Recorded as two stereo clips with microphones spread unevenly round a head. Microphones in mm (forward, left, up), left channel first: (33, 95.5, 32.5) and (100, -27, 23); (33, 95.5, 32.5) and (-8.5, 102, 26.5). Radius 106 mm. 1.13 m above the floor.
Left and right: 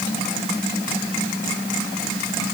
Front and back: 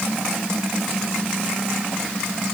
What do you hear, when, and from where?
Only background noise.